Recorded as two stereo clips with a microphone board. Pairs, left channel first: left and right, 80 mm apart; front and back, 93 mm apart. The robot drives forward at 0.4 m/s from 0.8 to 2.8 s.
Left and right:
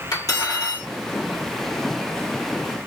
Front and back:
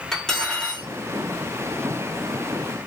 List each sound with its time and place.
0.1 s cutlery clinking: 80° left, 1.2 m; by 0.9 s 85° left, 1.1 m